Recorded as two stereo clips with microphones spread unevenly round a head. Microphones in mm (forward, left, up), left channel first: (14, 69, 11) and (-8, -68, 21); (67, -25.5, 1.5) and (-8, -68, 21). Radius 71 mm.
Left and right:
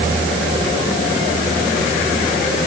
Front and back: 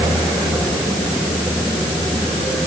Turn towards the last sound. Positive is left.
No sound to turn to.